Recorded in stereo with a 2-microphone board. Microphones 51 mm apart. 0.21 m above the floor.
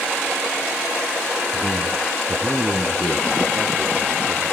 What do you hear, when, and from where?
1.5 s a man speaking: 25° left (ahead or behind), 2 m; by 4.4 s 45° right (ahead or behind), 3.5 m